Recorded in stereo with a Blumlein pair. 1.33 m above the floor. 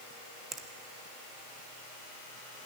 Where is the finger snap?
20° right, 1.3 m.